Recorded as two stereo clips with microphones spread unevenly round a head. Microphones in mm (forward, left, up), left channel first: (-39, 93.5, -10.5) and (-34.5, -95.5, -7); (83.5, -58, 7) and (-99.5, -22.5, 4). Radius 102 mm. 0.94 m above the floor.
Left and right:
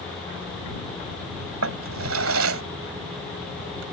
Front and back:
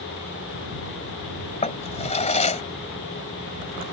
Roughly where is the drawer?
Ahead right.